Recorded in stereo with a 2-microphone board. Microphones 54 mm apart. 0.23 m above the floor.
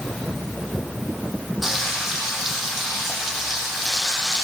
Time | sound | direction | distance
1.6 | frying | 5° right (ahead or behind) | 9.5 m